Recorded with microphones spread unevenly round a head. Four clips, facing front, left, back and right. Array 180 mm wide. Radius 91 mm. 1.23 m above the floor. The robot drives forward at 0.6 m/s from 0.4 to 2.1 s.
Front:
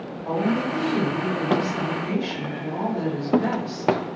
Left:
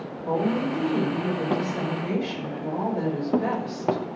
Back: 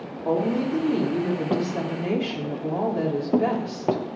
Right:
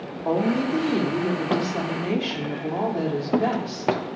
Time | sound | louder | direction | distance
0.2 | a woman speaking | right 2 dB, back 1 dB | 120° right | 2.5 m